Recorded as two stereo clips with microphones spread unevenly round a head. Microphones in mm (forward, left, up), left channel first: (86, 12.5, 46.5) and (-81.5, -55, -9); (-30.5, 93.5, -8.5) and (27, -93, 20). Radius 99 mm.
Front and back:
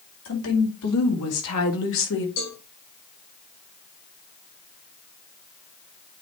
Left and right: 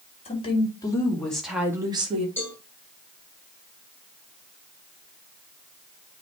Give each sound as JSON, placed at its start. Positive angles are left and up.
{"t": 0.2, "sound": "a woman speaking", "azimuth_deg": 45, "distance_m": 2.5}
{"t": 2.4, "sound": "a cowbell", "azimuth_deg": 25, "distance_m": 5.5}